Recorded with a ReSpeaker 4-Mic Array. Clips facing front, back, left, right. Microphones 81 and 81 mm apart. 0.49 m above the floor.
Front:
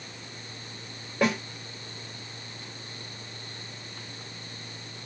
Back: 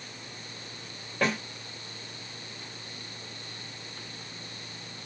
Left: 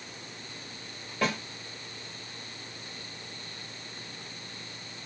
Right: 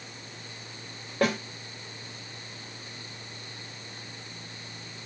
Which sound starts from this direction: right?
A snare drum, at 1.2 s.